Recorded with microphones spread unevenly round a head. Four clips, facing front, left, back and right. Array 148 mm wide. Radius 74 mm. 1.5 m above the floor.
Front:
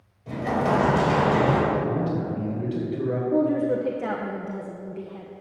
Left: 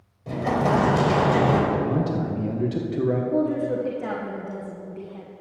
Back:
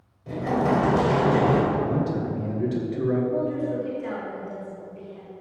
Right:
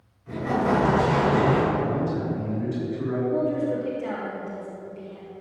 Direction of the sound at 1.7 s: 105° left.